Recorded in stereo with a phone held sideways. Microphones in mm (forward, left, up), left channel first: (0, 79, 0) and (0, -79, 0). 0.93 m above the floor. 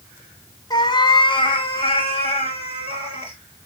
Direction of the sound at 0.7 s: 25° left (ahead or behind).